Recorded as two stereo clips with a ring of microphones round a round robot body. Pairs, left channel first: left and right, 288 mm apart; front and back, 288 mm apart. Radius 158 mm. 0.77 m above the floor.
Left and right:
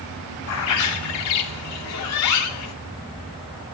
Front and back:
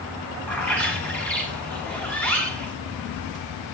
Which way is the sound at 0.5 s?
85° left.